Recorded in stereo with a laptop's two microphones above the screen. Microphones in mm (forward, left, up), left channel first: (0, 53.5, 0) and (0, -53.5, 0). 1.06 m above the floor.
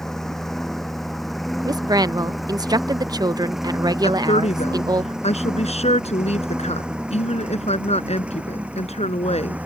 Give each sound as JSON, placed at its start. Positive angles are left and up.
{"t": 0.0, "sound": "a lawn mower", "side_deg": 5}
{"t": 1.6, "sound": "a woman speaking", "side_deg": -40}
{"t": 4.0, "sound": "a woman speaking", "side_deg": 85}